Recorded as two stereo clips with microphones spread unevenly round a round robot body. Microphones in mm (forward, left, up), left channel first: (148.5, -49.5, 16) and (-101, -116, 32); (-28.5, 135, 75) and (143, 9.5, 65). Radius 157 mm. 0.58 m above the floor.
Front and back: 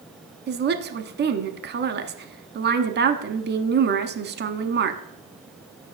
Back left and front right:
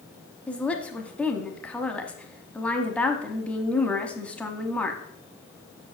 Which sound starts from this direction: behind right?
A woman speaking, at 0.5 s.